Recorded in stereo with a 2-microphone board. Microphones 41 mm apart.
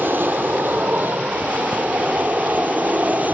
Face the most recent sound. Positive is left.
turn(degrees=-40)  # may be behind; listen again after turning